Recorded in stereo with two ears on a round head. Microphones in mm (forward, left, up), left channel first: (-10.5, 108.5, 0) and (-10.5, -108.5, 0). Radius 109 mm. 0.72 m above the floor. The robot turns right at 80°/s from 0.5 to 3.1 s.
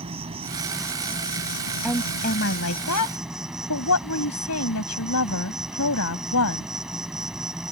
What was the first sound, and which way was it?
An insect, 25° right.